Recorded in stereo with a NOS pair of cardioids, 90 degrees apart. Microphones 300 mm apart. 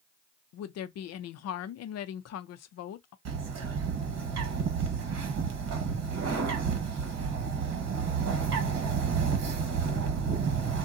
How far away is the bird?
About 1.2 m.